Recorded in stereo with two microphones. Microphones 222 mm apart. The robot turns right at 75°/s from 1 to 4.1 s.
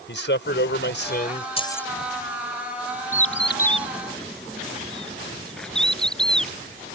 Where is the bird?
75° left (ahead or behind); by 6.5 s 5° left (ahead or behind).